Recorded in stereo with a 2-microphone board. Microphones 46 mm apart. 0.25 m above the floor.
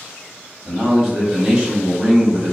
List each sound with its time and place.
0.7 s a man speaking: 20° right (ahead or behind), 1.2 m